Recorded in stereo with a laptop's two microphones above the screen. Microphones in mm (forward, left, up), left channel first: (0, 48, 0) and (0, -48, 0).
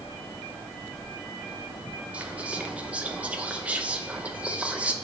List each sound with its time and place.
2.1 s whispering: 15° right (ahead or behind), 0.6 m